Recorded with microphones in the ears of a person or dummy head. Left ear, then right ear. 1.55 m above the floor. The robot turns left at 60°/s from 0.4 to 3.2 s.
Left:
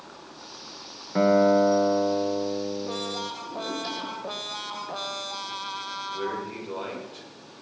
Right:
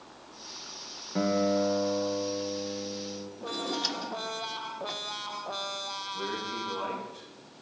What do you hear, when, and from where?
1.1 s a guitar: 160° left, 1.3 m; by 3.3 s 35° left, 1.3 m
3.4 s a drawer: 45° right (ahead or behind), 1.2 m
6.1 s a man speaking: 55° left (ahead or behind), 7 m